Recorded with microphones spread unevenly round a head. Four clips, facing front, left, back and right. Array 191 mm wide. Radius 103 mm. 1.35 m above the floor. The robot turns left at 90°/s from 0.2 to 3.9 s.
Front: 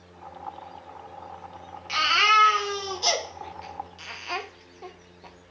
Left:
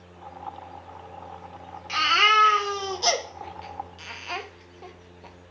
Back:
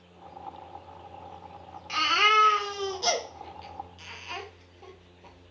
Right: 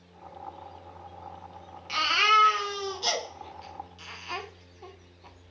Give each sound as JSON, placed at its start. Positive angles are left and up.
{"t": 1.9, "sound": "a baby crying", "azimuth_deg": -130, "distance_m": 0.7}